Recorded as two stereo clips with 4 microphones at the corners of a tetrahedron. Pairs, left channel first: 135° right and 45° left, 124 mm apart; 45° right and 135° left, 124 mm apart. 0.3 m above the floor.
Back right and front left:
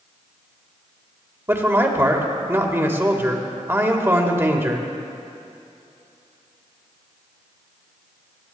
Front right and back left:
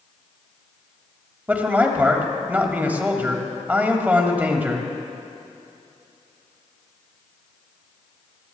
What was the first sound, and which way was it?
A man speaking, 80° left.